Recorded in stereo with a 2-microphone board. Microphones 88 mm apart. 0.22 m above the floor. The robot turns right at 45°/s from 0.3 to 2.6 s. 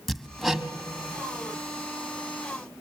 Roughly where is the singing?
I don't hear singing.